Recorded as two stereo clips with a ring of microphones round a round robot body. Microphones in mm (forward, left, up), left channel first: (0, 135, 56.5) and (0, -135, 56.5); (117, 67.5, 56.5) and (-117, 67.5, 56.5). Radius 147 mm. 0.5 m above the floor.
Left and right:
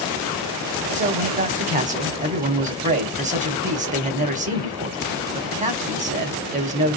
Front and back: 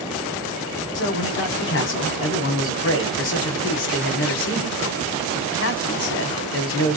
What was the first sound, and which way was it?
A man speaking, 30° right.